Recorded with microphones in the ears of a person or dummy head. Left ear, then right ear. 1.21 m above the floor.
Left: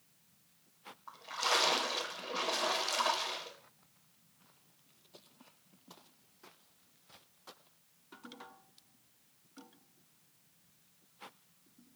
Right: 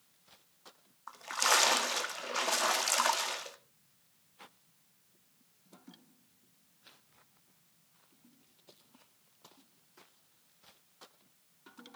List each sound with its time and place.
1.1 s a splash: 70° right (ahead or behind), 1.8 m